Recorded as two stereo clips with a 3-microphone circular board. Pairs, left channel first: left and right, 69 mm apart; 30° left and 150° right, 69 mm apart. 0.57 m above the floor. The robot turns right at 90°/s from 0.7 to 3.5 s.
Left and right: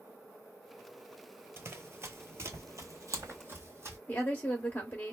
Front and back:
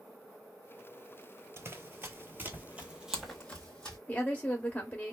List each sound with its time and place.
1.6 s running footsteps: 125° right, 0.7 m; by 4.0 s 50° right, 1.4 m
4.1 s a woman speaking: 70° left, 0.8 m